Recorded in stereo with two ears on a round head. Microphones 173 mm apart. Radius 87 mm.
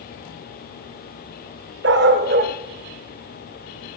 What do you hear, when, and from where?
1.8 s a dog barking: 60° right (ahead or behind), 1.4 m; by 4.0 s 5° right (ahead or behind), 1.0 m